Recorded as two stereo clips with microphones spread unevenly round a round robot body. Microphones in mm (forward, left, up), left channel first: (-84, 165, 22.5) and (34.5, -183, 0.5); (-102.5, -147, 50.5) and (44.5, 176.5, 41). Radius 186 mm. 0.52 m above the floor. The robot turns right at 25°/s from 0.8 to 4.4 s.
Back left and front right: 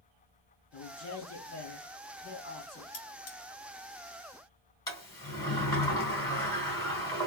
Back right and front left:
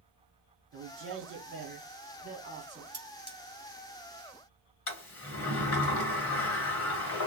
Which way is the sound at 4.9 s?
170° right.